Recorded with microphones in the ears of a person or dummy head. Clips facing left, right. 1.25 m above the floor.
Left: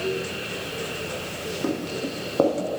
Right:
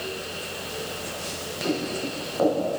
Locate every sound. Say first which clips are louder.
1.6 s footsteps: right 1 dB; 60° left (ahead or behind), 2.5 m